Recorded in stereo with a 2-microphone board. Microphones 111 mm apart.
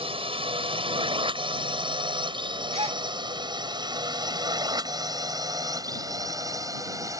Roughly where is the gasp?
Right.